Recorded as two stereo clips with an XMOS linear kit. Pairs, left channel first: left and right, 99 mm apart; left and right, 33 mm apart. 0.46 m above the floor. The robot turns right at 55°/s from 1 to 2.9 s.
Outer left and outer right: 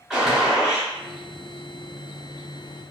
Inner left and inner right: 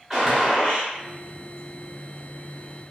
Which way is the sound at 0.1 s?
5° right (ahead or behind).